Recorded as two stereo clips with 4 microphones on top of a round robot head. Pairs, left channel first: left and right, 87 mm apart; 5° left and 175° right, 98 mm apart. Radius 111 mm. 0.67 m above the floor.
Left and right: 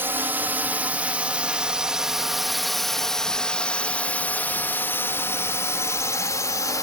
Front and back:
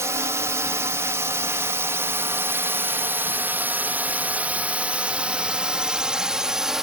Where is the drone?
135° right; by 6.8 s 100° left.